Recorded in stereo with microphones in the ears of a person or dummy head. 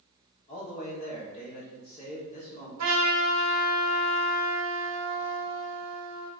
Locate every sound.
0.5 s a man speaking: 40° left (ahead or behind), 1.2 m
2.8 s a trumpet: 70° right (ahead or behind), 0.7 m